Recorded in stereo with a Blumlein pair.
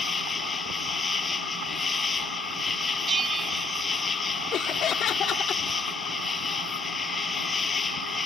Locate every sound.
0.0 s an insect: 15° left
3.1 s a bell: 20° right
4.5 s laughter: 30° left